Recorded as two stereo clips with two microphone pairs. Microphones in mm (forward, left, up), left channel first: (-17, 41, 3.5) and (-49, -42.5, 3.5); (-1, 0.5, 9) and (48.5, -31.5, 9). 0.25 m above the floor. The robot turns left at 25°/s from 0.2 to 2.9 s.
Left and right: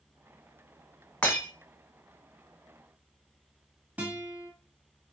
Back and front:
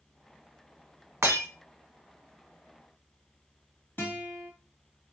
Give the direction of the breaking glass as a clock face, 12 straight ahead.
12 o'clock.